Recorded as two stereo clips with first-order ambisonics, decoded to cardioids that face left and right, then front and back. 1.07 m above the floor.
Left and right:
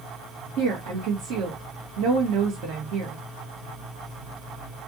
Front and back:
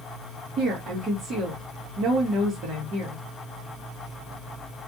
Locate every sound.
0.6 s a woman speaking: 125° right, 1.7 m